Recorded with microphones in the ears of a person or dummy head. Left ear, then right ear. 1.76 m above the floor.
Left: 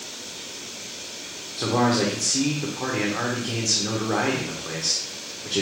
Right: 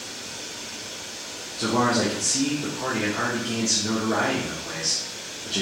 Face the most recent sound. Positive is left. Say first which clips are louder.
# even
turn(degrees=40)  # may be behind; listen again after turning